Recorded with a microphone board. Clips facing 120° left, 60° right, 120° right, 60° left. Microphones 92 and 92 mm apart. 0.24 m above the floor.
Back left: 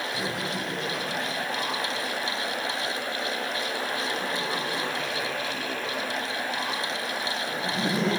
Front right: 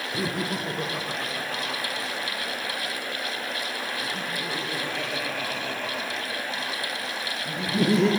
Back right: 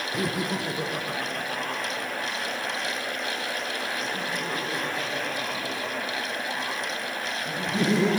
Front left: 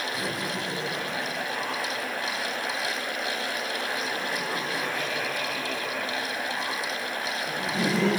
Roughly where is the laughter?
Right.